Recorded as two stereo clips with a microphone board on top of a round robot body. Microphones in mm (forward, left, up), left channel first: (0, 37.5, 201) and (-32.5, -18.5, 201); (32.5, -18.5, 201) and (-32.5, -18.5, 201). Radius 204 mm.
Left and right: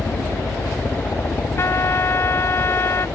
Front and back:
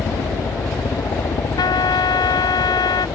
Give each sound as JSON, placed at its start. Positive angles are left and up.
{"t": 0.0, "sound": "a helicopter", "azimuth_deg": 5}
{"t": 1.6, "sound": "a trumpet", "azimuth_deg": 10}